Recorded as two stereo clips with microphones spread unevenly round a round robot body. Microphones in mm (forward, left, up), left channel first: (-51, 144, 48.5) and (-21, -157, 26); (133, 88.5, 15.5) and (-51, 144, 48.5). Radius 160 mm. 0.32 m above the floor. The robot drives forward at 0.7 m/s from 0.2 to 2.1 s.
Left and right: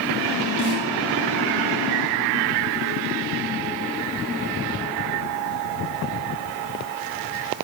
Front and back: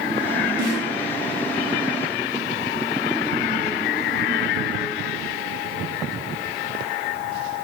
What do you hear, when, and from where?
0.6 s a snare drum: 170° left, 4.5 m